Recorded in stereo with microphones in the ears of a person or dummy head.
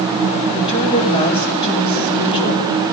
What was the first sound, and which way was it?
A woman speaking, 25° left (ahead or behind).